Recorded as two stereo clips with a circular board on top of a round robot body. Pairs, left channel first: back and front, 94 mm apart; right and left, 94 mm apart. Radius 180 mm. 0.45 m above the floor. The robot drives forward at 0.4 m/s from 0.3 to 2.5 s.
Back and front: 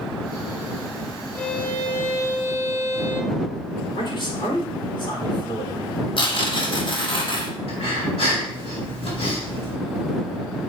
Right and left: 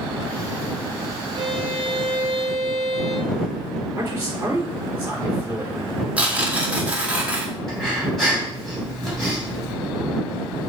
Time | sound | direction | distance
1.4 | a violin | 110° left | 1.7 m
4.0 | a man speaking | 160° left | 3 m
6.2 | tearing paper | 165° left | 2.0 m
7.7 | breathing | 175° right | 3.5 m